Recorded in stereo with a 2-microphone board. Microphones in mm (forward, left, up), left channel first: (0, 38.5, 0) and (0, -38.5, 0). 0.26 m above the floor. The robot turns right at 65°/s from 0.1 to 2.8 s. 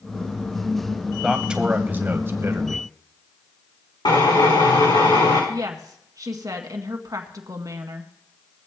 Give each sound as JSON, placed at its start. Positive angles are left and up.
{"t": 1.2, "sound": "a man speaking", "azimuth_deg": -170, "distance_m": 1.1}
{"t": 4.0, "sound": "a drill", "side_deg": 90, "distance_m": 7.5}
{"t": 5.5, "sound": "a woman speaking", "side_deg": -55, "distance_m": 2.0}